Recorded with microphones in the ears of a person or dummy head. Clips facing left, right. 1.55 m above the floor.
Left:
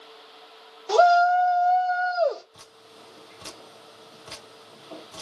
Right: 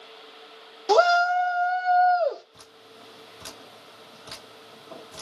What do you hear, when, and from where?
0.9 s a shout: 55° right (ahead or behind), 0.5 m; by 2.4 s 10° right (ahead or behind), 1.0 m
2.5 s dripping: 25° right (ahead or behind), 1.8 m